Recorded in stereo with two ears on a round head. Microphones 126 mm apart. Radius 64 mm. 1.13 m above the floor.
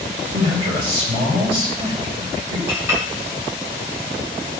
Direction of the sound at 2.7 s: 15° right (ahead or behind).